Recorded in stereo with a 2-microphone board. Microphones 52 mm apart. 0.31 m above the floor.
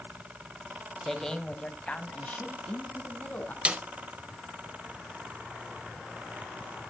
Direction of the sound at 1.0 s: 5° left (ahead or behind).